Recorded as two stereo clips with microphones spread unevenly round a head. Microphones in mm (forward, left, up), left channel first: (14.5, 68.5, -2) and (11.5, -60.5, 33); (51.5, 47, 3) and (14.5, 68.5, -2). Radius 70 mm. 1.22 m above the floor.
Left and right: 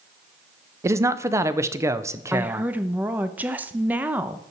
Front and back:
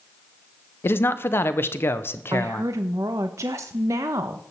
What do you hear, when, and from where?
0.8 s a man speaking: 15° right, 0.7 m
2.3 s a woman speaking: 170° right, 0.7 m